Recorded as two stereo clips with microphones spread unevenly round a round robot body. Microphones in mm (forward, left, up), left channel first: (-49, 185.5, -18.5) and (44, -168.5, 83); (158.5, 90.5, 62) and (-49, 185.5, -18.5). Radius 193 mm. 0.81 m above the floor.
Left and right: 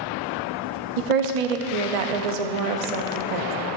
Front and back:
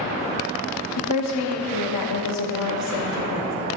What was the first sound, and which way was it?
A woman speaking, 70° right.